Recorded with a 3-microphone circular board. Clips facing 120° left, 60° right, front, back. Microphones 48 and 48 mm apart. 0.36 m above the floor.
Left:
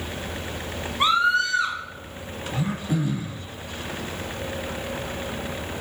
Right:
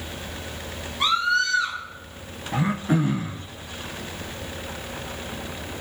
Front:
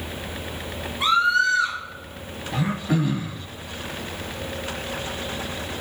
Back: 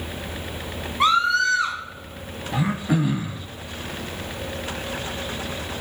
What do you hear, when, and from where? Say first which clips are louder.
1.0 s a scream: left 2 dB, even; straight behind, 3.5 m
2.5 s throat clearing: right 4 dB, back 1 dB; 105° right, 0.5 m